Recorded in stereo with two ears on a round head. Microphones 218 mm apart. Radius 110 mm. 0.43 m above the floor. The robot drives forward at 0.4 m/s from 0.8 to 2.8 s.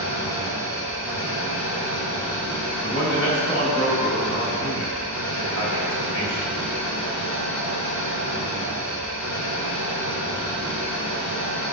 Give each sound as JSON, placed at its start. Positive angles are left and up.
{"t": 0.0, "sound": "an engine running", "side_deg": -15, "distance_m": 2.5}
{"t": 2.8, "sound": "a man speaking", "side_deg": 20, "distance_m": 2.5}